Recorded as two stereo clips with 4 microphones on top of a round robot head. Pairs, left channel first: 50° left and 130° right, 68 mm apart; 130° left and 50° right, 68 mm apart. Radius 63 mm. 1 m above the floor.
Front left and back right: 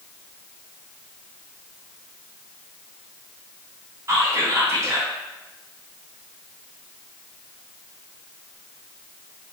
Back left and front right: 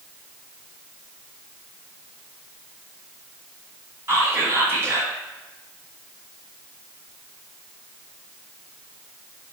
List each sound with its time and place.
4.1 s whispering: 90° right, 1.3 m